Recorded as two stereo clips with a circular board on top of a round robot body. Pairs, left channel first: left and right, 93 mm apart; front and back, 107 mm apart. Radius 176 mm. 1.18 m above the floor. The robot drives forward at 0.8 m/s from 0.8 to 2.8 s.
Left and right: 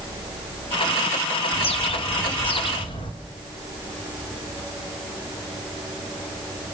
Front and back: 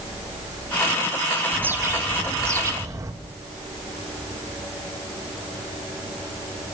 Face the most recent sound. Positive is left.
turn(degrees=120)